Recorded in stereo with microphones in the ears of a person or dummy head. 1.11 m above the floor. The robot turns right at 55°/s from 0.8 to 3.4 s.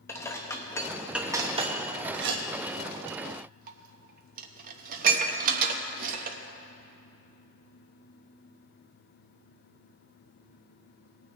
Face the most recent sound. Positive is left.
turn(degrees=-50)  # may be behind; listen again after turning